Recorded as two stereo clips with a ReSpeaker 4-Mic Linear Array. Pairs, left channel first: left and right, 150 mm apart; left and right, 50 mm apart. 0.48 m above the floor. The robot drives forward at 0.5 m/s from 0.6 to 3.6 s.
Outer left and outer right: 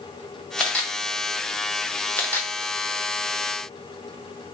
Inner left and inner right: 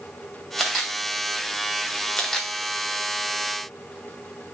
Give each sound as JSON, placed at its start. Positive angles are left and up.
{"t": 0.6, "sound": "a camera shutter", "side_deg": 5, "distance_m": 1.8}